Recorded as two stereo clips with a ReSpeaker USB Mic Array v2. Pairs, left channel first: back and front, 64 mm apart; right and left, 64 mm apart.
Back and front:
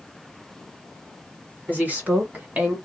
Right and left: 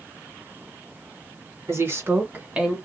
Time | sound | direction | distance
1.7 | a woman speaking | 60° left | 1.9 m